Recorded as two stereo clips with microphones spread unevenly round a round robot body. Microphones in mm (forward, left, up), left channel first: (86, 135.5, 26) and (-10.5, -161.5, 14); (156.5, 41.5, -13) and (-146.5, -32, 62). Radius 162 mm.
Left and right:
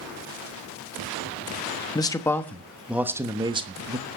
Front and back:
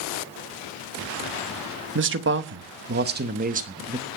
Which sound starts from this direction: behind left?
A man speaking, at 1.9 s.